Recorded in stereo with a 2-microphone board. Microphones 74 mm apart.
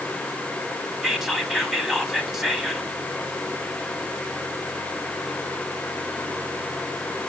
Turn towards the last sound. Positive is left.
turn(degrees=-5)  # may be behind; listen again after turning